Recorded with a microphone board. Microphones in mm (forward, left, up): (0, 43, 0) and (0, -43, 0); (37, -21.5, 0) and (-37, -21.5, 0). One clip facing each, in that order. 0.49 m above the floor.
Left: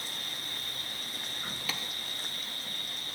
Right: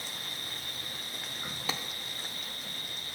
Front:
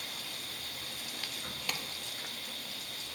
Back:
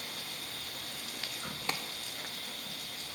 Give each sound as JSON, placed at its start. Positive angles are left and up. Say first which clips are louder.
{"t": 0.0, "sound": "an insect", "louder": "even, back 1 dB", "azimuth_deg": -165, "distance_m": 1.7}
{"t": 1.7, "sound": "a clap", "louder": "right 4 dB, back 3 dB", "azimuth_deg": -135, "distance_m": 0.7}